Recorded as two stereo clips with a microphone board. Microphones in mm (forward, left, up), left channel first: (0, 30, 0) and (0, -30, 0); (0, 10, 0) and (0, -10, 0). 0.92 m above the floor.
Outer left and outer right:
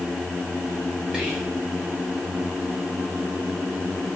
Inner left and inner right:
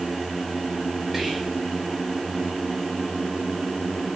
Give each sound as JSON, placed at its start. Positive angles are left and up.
{"t": 1.1, "sound": "whispering", "side_deg": -10, "distance_m": 0.6}